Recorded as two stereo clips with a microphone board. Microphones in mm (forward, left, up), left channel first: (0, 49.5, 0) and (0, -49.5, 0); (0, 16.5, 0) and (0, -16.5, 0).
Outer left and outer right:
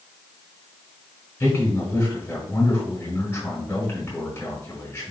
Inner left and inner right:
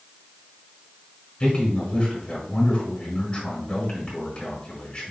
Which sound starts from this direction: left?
A man speaking, at 1.4 s.